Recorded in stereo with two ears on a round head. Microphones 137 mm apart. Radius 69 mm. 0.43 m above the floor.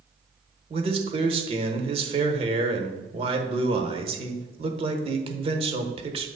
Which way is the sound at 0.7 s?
40° right (ahead or behind).